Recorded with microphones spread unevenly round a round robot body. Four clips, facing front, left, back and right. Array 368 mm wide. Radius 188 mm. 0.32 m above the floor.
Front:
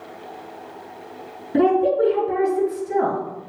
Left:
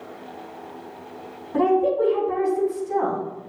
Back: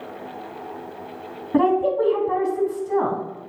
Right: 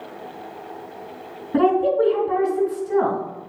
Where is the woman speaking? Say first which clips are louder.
Right 2 dB, front 1 dB; 140° right, 3.5 m.